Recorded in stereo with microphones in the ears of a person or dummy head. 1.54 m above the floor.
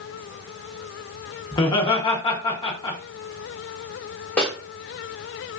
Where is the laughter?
20° left (ahead or behind), 0.7 m.